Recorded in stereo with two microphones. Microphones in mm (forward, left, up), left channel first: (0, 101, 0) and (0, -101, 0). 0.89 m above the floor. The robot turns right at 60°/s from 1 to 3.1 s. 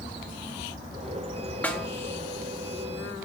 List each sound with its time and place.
1.6 s a snare drum: 10° left (ahead or behind), 1.7 m; by 1.9 s 5° right (ahead or behind), 1.7 m